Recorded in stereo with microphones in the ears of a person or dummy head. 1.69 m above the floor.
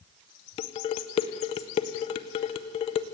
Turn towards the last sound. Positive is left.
turn(degrees=25)  # may be behind; listen again after turning